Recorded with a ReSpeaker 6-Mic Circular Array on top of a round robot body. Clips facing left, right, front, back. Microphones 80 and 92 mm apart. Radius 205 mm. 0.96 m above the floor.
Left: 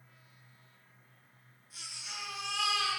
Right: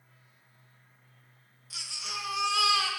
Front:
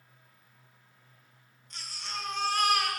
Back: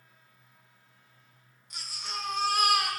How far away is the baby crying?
About 2 m.